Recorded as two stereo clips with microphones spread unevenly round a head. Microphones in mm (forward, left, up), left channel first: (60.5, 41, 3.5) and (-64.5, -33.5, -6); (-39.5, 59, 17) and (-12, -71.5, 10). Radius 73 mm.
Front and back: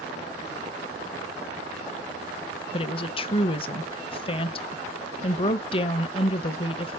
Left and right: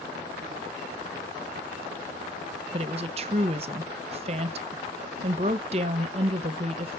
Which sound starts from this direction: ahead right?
A woman speaking, at 2.7 s.